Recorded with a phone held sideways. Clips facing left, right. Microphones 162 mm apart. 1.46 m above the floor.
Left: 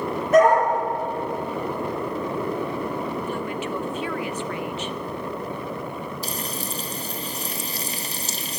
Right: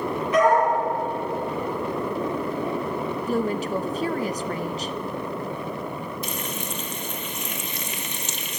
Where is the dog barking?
45° left (ahead or behind), 10 m.